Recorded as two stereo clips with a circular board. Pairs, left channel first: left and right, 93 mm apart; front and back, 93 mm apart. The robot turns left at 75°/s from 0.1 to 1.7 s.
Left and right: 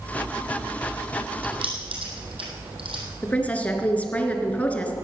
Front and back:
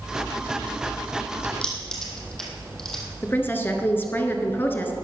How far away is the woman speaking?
About 1.3 m.